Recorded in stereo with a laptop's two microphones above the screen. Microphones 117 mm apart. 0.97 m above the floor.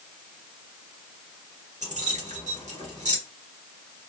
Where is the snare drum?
No snare drum in this recording.